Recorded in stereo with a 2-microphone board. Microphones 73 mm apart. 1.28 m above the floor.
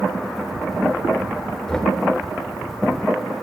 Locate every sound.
1.7 s knocking: 10° left (ahead or behind), 3 m